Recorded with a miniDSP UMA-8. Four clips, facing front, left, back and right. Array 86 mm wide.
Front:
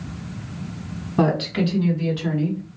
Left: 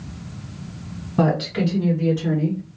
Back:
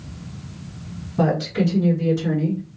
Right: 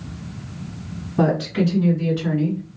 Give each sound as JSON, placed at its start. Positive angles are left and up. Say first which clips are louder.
{"t": 1.2, "sound": "a woman speaking", "louder": "right 1 dB, even", "azimuth_deg": 30, "distance_m": 1.9}